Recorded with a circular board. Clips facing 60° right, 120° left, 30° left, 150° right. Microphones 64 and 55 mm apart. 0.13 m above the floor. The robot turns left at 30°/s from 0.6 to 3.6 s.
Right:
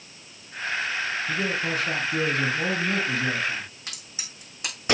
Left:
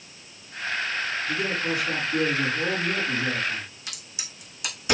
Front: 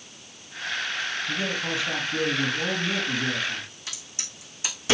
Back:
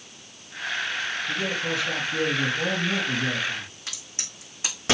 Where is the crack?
115° right, 6 m.